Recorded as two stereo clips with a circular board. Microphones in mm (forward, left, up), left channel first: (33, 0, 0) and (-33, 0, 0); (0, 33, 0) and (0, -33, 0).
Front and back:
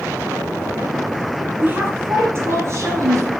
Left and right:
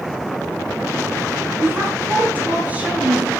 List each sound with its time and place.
1.6 s a woman speaking: 125° right, 1.9 m; by 3.3 s 160° right, 2 m